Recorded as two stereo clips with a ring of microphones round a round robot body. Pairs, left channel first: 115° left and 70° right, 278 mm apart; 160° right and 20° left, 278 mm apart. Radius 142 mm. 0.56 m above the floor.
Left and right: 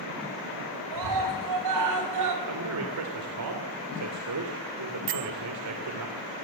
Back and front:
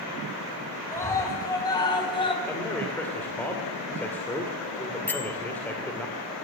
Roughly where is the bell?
Right.